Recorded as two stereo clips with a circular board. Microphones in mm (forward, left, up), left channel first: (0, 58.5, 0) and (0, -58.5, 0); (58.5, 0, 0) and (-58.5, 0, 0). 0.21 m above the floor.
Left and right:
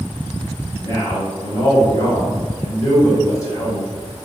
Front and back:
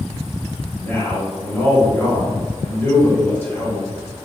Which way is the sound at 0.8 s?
55° left.